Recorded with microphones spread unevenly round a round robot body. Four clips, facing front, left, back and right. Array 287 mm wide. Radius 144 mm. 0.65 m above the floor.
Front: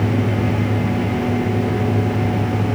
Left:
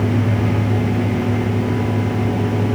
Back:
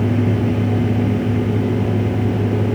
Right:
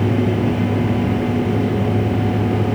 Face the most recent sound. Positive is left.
No sound to turn to.